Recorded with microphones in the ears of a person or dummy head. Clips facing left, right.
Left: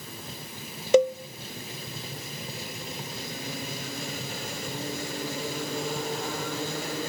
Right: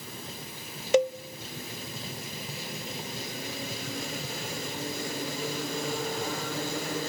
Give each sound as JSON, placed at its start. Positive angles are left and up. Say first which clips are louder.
{"t": 0.9, "sound": "a cowbell", "louder": "left 4 dB", "side_deg": 80, "distance_m": 0.7}